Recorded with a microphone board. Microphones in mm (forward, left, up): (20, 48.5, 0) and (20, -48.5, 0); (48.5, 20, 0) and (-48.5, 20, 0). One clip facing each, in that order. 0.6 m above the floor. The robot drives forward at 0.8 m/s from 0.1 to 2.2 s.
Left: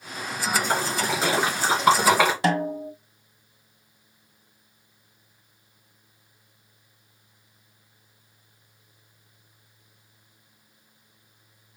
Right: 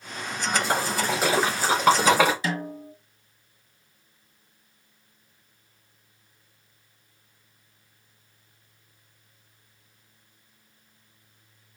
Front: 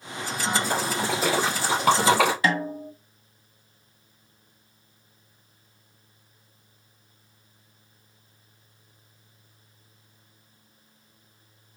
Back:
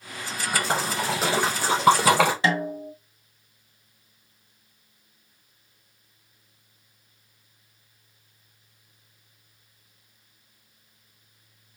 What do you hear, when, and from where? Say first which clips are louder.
0.5 s a splash: even, back 1 dB; 170° right, 2.5 m; by 2.3 s 175° right, 4 m
2.4 s a snare drum: left 7 dB, even; 115° left, 1.1 m